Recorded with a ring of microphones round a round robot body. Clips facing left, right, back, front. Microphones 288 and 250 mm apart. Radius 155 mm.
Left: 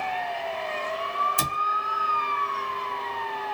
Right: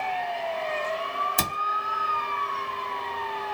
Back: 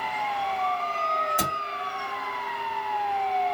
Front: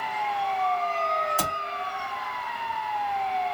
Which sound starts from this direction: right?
A cupboard door, at 1.4 s.